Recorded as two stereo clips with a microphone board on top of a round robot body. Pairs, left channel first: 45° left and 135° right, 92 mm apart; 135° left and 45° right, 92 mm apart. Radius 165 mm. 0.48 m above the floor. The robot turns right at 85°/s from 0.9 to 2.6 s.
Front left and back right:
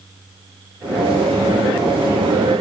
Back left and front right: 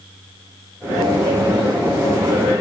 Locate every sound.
Only background noise.